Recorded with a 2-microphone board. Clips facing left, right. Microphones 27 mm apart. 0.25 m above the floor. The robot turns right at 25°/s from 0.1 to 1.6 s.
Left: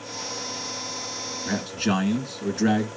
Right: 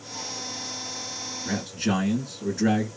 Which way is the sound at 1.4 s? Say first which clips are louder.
Left 2 dB; 5° left (ahead or behind).